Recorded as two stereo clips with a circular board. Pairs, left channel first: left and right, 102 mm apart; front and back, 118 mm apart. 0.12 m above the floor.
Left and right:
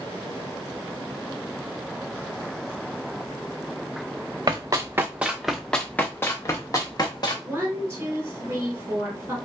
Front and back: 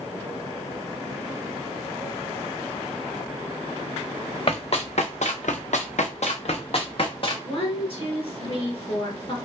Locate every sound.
4.5 s running footsteps: 40° right, 0.8 m; by 7.3 s 40° left, 1.4 m
7.5 s a woman speaking: 30° right, 1.6 m